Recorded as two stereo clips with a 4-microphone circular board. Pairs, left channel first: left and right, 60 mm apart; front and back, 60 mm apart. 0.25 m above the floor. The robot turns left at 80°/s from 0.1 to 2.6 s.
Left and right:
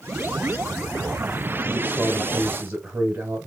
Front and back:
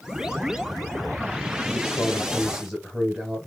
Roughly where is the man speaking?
Ahead right.